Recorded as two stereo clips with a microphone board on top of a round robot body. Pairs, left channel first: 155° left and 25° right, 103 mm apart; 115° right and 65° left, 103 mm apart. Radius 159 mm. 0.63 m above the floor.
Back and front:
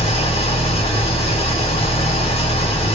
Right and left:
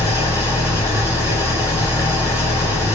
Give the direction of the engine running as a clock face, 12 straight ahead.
6 o'clock.